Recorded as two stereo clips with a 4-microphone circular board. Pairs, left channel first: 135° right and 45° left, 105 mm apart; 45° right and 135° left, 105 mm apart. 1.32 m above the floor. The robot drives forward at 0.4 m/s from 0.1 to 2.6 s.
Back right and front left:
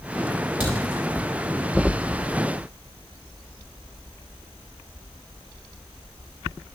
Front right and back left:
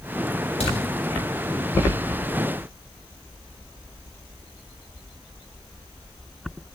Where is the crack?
35° right, 3.5 m.